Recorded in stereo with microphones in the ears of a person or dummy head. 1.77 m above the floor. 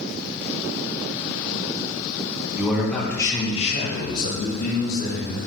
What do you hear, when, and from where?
2.6 s a man speaking: 10° right (ahead or behind), 1.8 m; by 5.4 s 75° left (ahead or behind), 3.5 m